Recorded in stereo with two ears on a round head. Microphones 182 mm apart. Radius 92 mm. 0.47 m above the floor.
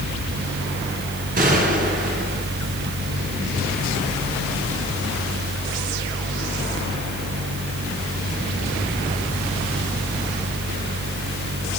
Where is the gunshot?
40° right (ahead or behind), 7 m.